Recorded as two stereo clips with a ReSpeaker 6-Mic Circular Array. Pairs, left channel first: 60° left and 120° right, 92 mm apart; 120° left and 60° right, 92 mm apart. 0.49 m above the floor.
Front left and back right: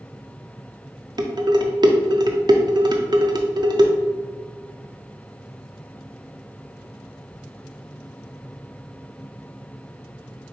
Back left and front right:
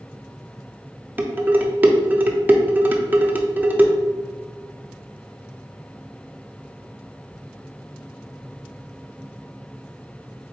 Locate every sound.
1.2 s dishes clattering: 125° right, 0.5 m